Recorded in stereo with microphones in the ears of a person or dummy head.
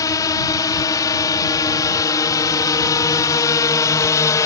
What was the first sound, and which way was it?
A drone, 20° left (ahead or behind).